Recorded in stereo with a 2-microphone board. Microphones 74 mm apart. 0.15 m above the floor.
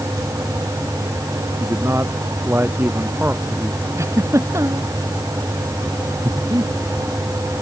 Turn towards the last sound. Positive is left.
turn(degrees=-60)  # may be behind; listen again after turning